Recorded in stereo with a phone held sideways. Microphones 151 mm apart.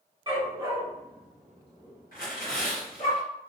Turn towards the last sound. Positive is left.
turn(degrees=70)  # may be behind; listen again after turning